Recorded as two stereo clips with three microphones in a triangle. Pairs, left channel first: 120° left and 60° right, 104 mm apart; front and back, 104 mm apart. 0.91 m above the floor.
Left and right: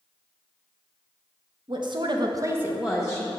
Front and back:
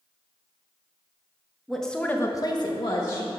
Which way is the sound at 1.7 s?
90° right.